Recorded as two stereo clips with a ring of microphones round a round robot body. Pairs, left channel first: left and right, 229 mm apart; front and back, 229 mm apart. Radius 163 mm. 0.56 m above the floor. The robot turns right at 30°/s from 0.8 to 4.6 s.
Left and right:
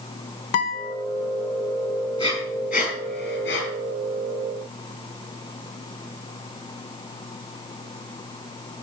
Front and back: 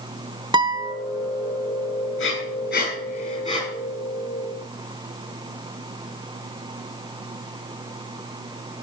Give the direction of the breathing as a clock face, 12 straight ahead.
11 o'clock.